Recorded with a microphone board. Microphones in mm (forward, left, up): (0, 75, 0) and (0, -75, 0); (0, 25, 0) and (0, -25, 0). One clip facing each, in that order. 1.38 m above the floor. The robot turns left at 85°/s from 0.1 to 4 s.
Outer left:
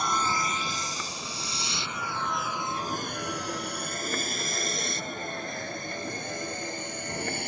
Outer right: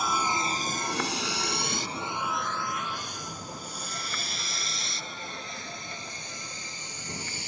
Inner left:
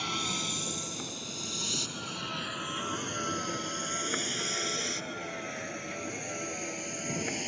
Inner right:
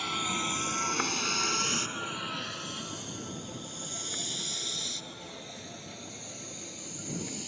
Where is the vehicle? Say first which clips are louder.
Even, inner right 2 dB; 5° right (ahead or behind); by 7.5 s 60° left (ahead or behind).